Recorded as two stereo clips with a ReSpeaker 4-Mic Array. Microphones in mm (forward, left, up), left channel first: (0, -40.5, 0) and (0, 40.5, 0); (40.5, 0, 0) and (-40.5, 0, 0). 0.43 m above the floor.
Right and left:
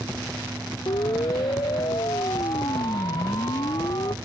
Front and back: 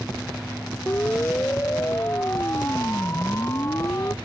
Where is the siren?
65° right; by 4.2 s 55° right.